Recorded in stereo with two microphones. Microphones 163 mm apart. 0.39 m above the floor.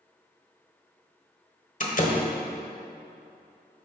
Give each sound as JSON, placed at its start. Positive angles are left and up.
{"t": 1.8, "sound": "a door slam", "side_deg": 55, "distance_m": 1.3}